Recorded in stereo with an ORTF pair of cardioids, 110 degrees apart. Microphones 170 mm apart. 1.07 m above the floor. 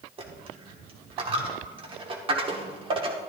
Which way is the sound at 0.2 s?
35° right.